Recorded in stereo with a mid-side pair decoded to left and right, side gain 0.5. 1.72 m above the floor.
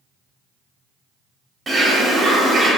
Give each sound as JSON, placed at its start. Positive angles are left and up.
{"t": 1.7, "sound": "a bird", "azimuth_deg": -15, "distance_m": 0.9}